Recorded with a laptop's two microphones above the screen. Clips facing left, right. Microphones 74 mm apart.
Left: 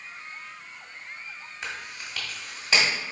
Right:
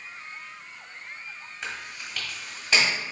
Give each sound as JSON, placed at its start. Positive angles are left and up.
{"t": 1.6, "sound": "chewing", "side_deg": 5, "distance_m": 1.3}